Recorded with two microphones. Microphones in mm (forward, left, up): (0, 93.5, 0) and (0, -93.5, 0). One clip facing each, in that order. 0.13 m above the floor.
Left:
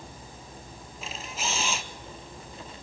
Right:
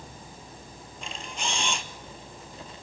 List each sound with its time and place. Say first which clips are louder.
1.0 s a camera shutter: even; 5° left (ahead or behind), 1.3 m